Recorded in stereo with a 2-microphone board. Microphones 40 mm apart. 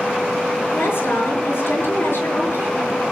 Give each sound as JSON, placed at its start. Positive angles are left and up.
{"t": 0.7, "sound": "a woman speaking", "side_deg": 65, "distance_m": 5.0}